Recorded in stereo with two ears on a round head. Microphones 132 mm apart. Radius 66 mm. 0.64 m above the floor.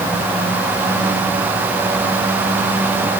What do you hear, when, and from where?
Only background noise.